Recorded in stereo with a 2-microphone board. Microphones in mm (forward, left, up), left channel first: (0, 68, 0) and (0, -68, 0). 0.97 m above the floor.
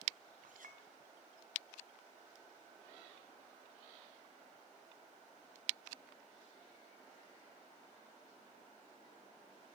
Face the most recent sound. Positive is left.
turn(degrees=-85)